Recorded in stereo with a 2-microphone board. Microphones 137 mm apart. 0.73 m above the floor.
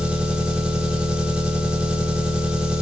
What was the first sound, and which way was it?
An engine running, 10° right (ahead or behind).